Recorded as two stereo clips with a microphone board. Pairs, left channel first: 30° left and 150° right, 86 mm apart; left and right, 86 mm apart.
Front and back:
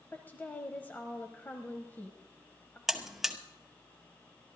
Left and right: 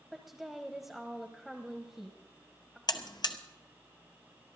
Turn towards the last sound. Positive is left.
turn(degrees=120)